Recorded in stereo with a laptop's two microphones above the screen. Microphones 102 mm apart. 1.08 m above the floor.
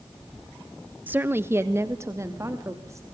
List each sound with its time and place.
1.1 s a woman speaking: 15° right (ahead or behind), 0.8 m; by 3.0 s 30° right (ahead or behind), 3 m